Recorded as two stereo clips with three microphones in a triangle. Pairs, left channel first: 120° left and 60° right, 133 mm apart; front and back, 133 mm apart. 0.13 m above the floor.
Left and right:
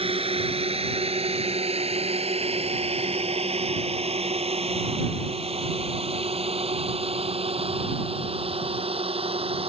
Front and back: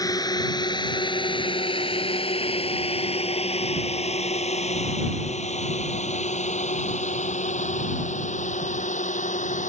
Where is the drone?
50° right; by 9.7 s 20° right.